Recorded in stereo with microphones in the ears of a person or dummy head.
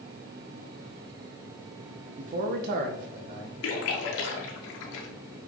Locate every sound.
2.2 s a man speaking: 45° right (ahead or behind), 0.8 m; by 3.5 s 65° right (ahead or behind), 1.5 m
3.6 s a splash: 65° left (ahead or behind), 1.3 m